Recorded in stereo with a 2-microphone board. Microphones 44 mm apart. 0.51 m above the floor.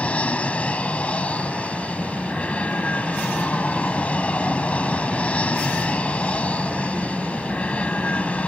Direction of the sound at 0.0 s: 30° left (ahead or behind).